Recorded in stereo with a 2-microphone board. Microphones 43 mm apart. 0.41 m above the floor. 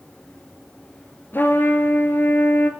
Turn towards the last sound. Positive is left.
turn(degrees=50)  # may be behind; listen again after turning